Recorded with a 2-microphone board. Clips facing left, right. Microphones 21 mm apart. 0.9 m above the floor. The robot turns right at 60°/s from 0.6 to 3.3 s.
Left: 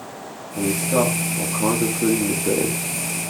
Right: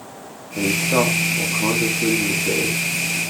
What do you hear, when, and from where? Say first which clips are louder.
0.6 s a man speaking: right 2 dB; 45° right, 1.7 m; by 2.9 s 90° left, 1.7 m